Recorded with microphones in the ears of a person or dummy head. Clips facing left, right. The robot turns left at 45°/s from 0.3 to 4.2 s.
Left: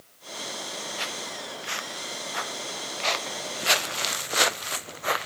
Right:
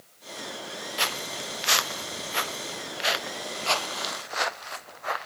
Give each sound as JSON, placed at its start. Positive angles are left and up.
{"t": 1.0, "sound": "footsteps", "side_deg": -75}